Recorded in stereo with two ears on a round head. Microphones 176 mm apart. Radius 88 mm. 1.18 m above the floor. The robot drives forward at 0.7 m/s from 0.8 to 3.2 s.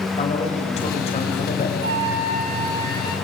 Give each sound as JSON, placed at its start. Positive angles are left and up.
{"t": 0.2, "sound": "a man speaking", "side_deg": 35, "distance_m": 5.5}
{"t": 1.8, "sound": "a flute", "side_deg": -60, "distance_m": 2.5}